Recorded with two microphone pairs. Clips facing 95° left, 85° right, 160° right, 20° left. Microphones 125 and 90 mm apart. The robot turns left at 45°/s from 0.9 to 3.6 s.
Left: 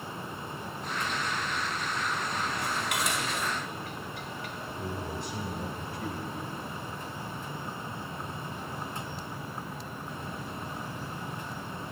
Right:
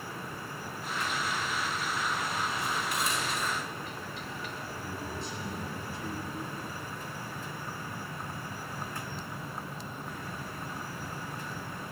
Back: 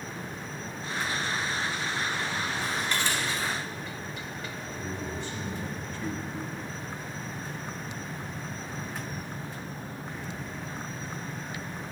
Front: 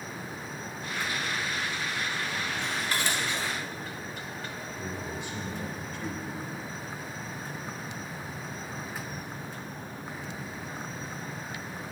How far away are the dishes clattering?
About 1.5 m.